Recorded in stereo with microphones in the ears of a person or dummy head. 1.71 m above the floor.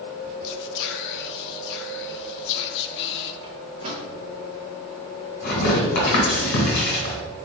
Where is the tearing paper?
55° left (ahead or behind), 1.9 m.